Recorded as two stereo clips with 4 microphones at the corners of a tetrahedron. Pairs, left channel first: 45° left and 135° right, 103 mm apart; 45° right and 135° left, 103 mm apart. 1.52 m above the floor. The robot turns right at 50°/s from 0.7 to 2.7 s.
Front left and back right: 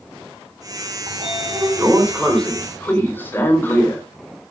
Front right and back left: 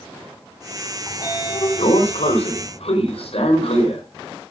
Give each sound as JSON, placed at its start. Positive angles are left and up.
{"t": 1.1, "sound": "a sliding door", "azimuth_deg": -110, "distance_m": 4.0}